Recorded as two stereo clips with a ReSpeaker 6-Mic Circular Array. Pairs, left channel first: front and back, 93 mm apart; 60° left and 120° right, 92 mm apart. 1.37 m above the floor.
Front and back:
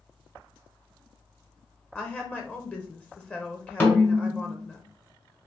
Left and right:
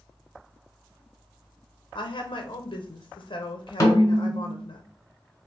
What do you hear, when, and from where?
1.9 s a woman speaking: 75° left, 0.6 m
3.8 s a snare drum: 55° left, 1.2 m